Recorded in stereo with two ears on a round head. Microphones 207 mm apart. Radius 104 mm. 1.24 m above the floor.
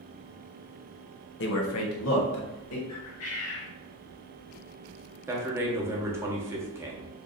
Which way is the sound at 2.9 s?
65° left (ahead or behind).